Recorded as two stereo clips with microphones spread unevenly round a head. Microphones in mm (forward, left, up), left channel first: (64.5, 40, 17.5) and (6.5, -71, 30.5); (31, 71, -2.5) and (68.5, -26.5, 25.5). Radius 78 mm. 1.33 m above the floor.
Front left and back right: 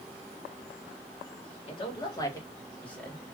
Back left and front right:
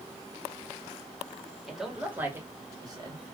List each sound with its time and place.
1.7 s a man speaking: 20° left, 1.4 m; by 3.2 s 25° right, 2.0 m